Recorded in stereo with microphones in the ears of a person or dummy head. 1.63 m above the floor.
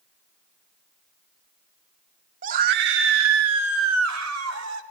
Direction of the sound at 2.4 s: 40° right (ahead or behind).